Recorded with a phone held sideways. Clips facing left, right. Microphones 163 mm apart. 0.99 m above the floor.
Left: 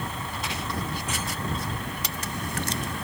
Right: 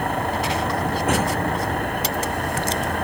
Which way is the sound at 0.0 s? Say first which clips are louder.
Right 11 dB; 65° right (ahead or behind).